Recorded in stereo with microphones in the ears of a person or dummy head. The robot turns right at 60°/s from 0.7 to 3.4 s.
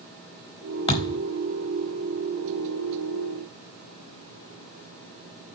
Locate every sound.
0.9 s a thud: 25° left (ahead or behind), 1.2 m; by 1.2 s 10° left (ahead or behind), 1.2 m